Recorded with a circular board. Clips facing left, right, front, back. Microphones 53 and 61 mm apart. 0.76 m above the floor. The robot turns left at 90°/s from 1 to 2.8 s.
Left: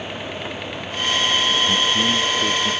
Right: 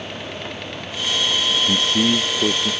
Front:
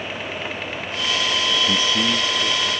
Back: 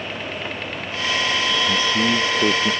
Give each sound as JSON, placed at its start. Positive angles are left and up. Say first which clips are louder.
{"t": 1.7, "sound": "a man speaking", "louder": "even, back 2 dB", "azimuth_deg": -65}